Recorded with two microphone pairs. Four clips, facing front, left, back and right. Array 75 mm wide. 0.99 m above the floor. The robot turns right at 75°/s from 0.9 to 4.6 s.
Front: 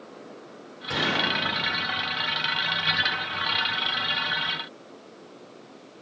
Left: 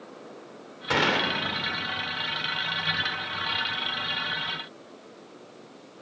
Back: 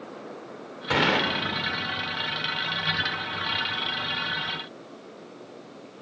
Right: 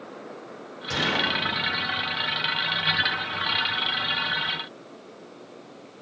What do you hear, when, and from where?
0.9 s a gunshot: 130° left, 2.5 m; by 1.3 s 160° left, 2.5 m